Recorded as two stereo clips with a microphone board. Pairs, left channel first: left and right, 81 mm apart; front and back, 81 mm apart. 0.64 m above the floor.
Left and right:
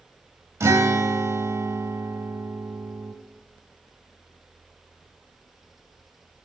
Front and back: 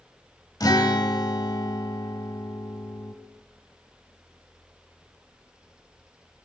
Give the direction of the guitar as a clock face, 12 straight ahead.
1 o'clock.